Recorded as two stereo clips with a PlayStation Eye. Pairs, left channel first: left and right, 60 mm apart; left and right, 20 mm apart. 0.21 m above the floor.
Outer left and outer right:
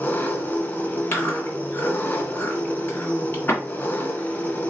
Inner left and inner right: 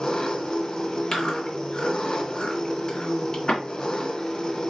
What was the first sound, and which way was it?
An engine running, 30° left (ahead or behind).